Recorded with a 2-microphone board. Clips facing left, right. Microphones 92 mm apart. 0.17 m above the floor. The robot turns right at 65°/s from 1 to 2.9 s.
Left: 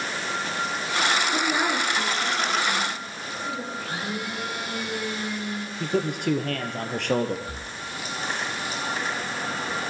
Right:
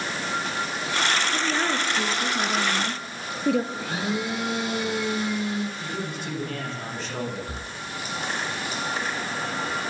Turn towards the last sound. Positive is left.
turn(degrees=-25)  # may be behind; listen again after turning